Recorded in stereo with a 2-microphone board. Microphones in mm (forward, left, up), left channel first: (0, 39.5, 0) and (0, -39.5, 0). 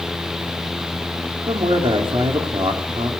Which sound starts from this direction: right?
A man speaking, at 1.5 s.